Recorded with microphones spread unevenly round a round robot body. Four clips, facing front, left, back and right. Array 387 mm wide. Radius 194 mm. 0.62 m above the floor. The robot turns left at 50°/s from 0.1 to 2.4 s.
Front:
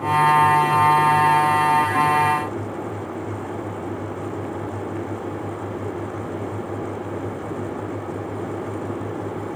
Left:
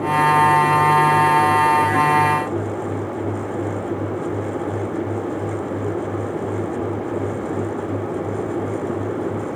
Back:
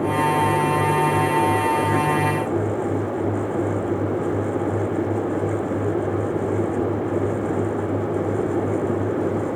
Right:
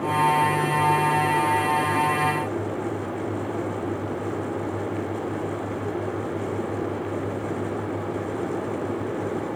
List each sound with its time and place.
Only background noise.